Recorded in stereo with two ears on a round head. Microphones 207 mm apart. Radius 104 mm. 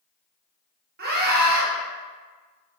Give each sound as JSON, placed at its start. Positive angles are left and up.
{"t": 1.0, "sound": "a scream", "side_deg": -45, "distance_m": 0.9}